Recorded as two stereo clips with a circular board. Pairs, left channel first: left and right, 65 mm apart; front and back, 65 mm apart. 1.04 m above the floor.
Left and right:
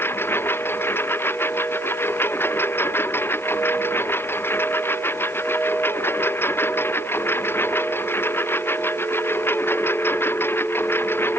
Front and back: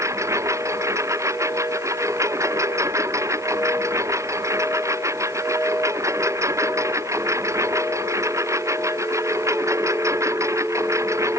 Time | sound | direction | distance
0.0 | a lawn mower | 140° left | ?